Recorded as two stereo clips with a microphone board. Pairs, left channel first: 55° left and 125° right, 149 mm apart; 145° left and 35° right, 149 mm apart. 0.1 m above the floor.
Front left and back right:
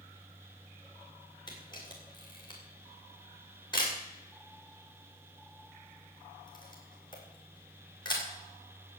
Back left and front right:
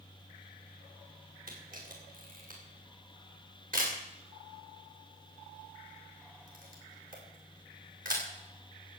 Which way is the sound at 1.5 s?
5° right.